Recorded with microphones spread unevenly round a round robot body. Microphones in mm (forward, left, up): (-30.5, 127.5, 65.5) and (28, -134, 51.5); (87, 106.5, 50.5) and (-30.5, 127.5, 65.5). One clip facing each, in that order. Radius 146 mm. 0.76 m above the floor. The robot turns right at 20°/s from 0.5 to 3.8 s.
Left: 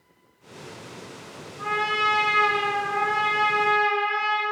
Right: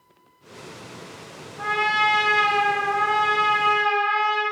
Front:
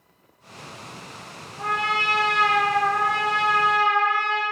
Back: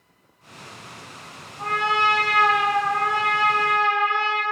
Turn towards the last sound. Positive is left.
turn(degrees=-15)